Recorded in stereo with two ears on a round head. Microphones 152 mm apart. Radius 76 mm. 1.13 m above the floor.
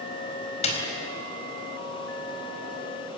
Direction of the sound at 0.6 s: 40° left (ahead or behind).